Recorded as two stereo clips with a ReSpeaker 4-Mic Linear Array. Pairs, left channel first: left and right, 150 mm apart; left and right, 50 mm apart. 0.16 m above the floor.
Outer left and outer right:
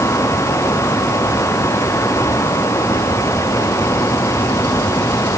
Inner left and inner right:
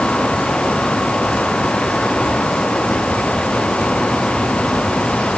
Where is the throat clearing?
I don't hear throat clearing.